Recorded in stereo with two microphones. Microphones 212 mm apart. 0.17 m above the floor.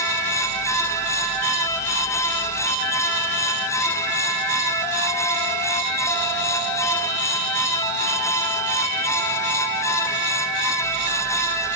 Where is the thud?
I don't hear a thud.